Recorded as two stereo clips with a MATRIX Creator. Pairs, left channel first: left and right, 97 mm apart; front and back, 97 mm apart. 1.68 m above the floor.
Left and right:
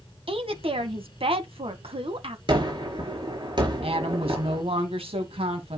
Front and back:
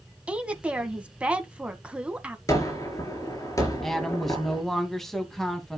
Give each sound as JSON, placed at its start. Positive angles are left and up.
{"t": 0.3, "sound": "a woman speaking", "azimuth_deg": -105, "distance_m": 2.0}
{"t": 2.5, "sound": "a gunshot", "azimuth_deg": -55, "distance_m": 4.5}
{"t": 3.8, "sound": "a woman speaking", "azimuth_deg": -85, "distance_m": 2.5}